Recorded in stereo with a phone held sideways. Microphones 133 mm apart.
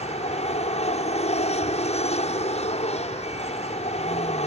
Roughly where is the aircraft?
Left.